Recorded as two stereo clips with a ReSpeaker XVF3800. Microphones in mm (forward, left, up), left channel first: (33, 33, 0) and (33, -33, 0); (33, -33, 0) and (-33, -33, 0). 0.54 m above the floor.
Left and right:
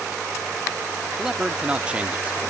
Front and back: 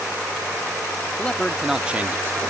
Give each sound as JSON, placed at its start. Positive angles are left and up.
{"t": 1.2, "sound": "a man speaking", "azimuth_deg": -20}